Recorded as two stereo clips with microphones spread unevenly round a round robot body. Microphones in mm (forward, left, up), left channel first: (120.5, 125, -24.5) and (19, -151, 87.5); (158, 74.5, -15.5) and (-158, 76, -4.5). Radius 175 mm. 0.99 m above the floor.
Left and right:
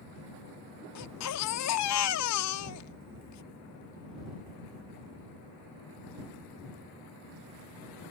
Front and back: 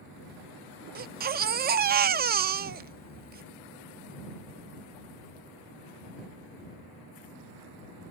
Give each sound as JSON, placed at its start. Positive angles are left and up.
{"t": 0.9, "sound": "a baby crying", "azimuth_deg": 125}